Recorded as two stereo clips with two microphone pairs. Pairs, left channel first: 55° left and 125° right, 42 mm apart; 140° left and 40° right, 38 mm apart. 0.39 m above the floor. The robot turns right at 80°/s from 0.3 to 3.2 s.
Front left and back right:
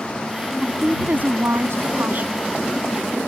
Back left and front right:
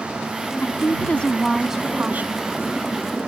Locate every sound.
0.6 s a woman speaking: 155° left; by 2.5 s 60° right